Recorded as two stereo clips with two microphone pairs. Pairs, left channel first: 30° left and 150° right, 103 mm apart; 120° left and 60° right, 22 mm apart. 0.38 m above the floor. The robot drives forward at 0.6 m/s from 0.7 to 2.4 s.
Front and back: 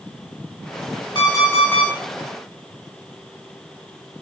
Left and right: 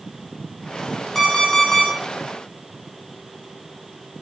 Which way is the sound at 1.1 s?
50° left.